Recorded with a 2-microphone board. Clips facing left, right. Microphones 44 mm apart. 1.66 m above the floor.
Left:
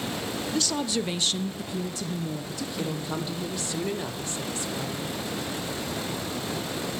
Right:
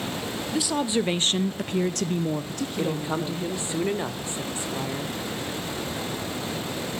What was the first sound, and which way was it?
A woman speaking, 10° right (ahead or behind).